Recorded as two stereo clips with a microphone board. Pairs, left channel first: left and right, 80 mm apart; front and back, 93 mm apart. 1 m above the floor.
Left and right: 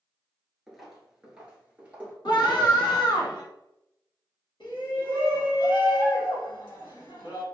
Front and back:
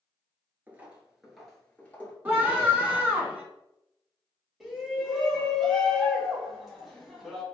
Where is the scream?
110° left, 1.6 m.